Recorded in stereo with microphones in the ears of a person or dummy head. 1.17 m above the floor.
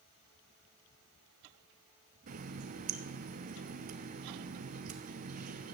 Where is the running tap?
45° right (ahead or behind), 1.0 m.